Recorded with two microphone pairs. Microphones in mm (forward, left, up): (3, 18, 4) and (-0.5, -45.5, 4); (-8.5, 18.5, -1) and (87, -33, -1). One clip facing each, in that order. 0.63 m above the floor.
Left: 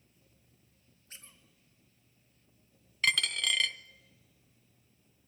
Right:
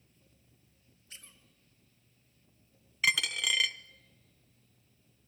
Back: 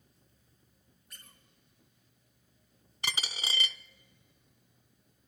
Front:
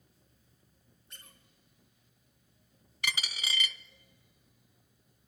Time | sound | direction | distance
1.1 | a squeak | 35° left | 3.5 m
3.0 | a dropped coin | 175° right | 0.6 m